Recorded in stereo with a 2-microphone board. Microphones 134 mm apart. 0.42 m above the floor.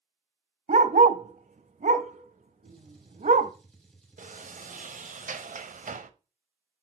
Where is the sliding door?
80° right, 0.7 m.